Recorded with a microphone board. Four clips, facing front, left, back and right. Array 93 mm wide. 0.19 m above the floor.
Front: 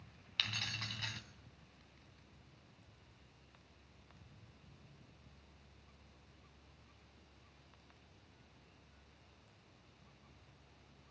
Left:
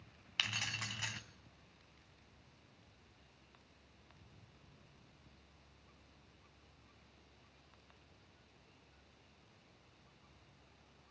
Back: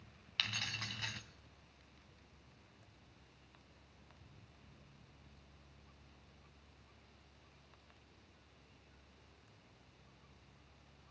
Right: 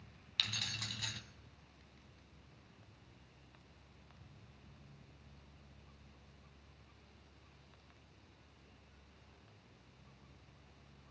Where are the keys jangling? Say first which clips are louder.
Left 3 dB, back 1 dB; 100° left, 1.1 m.